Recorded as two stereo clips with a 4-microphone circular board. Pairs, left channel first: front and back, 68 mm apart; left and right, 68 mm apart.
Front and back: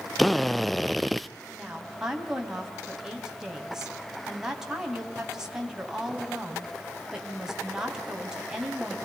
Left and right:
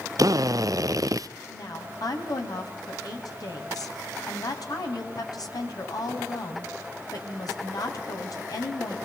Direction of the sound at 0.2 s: 90° right.